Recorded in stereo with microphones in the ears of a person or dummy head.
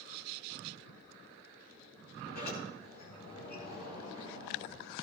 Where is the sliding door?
45° left (ahead or behind), 6.5 m.